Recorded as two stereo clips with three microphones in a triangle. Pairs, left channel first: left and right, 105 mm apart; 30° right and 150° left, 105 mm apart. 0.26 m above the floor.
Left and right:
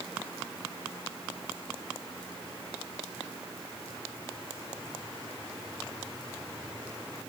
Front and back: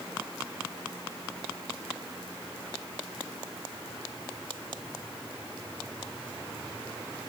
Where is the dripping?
I don't hear dripping.